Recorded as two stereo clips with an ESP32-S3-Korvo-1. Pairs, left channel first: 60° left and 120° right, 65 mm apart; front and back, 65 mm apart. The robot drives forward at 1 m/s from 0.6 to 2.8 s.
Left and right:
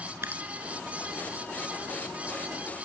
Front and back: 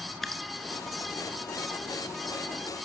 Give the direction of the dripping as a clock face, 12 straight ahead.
3 o'clock.